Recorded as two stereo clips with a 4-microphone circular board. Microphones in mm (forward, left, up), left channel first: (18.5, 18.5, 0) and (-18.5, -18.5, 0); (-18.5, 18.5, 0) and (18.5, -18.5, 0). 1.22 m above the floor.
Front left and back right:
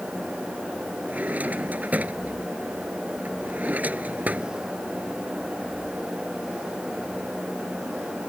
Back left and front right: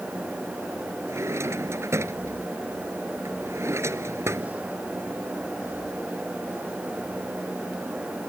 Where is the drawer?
75° right.